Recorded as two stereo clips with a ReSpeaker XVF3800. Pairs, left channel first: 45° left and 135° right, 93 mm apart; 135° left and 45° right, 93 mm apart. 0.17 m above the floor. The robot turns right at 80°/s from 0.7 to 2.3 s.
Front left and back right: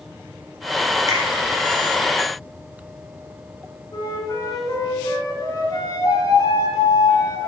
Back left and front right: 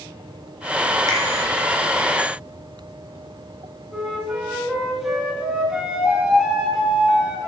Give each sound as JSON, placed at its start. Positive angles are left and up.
{"t": 1.1, "sound": "a finger snap", "azimuth_deg": -90, "distance_m": 2.5}
{"t": 3.9, "sound": "a flute", "azimuth_deg": 35, "distance_m": 1.3}